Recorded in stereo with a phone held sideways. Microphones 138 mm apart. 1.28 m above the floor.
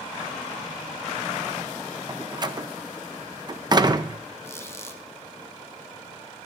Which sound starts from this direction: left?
A squeak, at 4.4 s.